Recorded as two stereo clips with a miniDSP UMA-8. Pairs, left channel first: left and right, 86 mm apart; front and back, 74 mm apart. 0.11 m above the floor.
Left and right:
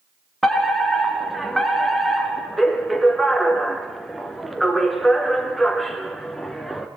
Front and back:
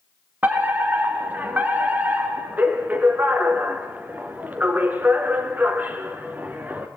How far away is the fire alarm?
About 2 m.